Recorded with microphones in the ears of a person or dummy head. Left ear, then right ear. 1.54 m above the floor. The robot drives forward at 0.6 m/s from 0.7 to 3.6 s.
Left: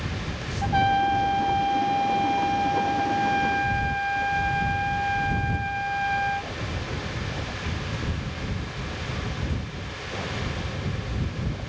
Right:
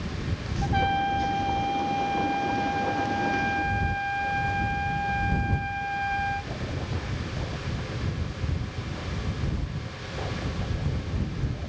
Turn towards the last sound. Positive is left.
turn(degrees=20)  # may be behind; listen again after turning